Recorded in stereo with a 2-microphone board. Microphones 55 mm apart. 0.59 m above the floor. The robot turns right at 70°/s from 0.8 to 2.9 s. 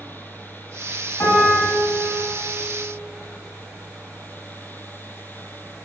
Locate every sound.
1.2 s a piano: 80° left, 2 m; by 1.7 s 115° left, 2 m